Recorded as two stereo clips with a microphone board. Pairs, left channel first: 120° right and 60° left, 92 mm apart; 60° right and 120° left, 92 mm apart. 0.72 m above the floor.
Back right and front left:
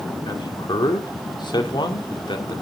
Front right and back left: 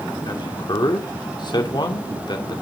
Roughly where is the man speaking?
Right.